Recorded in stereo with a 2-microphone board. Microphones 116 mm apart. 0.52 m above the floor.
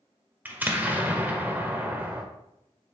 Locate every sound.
0.5 s an explosion: 15° right (ahead or behind), 1.1 m